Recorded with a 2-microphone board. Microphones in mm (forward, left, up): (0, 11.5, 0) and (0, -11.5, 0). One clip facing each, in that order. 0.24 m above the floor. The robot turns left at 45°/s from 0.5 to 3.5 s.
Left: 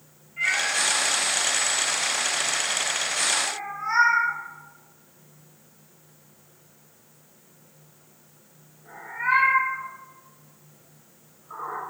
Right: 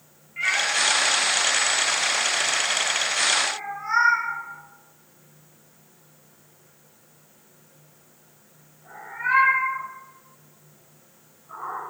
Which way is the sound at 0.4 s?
60° right (ahead or behind).